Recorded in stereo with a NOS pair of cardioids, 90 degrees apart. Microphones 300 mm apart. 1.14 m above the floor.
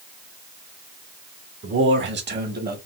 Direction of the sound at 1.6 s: 45° right.